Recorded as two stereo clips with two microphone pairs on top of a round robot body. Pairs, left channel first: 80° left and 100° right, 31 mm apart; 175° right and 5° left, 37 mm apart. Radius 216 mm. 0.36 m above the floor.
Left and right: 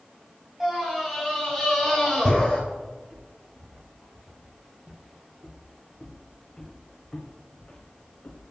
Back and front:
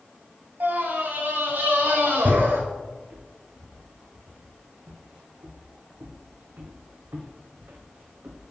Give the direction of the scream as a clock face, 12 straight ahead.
1 o'clock.